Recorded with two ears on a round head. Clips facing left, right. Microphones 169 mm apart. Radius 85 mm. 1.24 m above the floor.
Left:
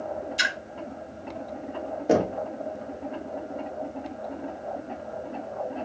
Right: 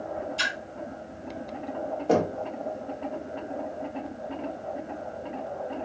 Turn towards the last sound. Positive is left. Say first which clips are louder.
# left 2 dB
turn(degrees=15)  # may be behind; listen again after turning